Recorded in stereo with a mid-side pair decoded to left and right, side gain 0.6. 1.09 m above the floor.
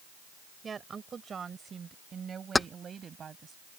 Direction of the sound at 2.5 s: 15° left.